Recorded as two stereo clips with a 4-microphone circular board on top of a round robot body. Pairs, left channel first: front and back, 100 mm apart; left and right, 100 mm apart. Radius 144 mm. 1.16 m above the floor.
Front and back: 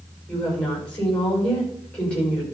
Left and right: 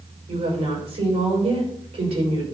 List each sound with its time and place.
0.3 s a woman speaking: 80° right, 6 m